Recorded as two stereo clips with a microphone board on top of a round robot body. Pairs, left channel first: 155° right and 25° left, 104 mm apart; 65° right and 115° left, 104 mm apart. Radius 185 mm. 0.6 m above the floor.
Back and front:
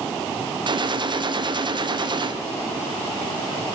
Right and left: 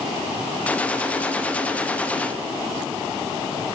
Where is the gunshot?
5° left, 1.1 m.